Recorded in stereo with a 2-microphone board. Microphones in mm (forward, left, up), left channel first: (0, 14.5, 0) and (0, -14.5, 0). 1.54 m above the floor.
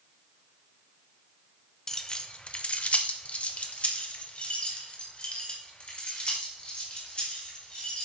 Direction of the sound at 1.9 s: 20° left (ahead or behind).